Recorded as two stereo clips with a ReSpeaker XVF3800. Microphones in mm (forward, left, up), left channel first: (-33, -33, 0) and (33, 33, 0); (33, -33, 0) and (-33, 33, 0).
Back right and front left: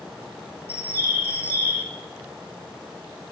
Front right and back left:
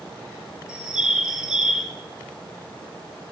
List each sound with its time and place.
0.7 s a bird: 65° left, 0.8 m